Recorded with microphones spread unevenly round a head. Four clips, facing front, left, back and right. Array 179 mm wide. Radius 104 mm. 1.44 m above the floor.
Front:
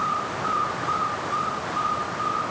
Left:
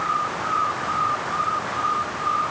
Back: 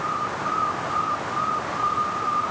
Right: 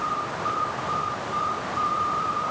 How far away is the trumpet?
No trumpet in this recording.